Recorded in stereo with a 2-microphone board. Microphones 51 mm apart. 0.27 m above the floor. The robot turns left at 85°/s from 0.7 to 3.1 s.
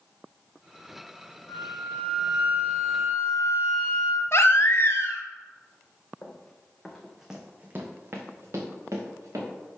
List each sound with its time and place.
1.5 s a flute: 130° left, 3 m; by 4.2 s 10° right, 3 m
4.3 s a baby crying: 55° left (ahead or behind), 0.6 m
6.2 s running footsteps: 30° left (ahead or behind), 1.7 m; by 9.5 s 85° right, 2.5 m